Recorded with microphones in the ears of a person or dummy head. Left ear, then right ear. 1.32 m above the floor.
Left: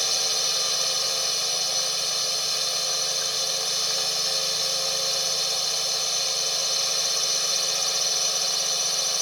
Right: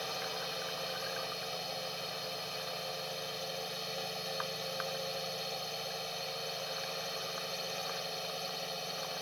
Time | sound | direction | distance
0.0 | a drone | 60° left (ahead or behind) | ?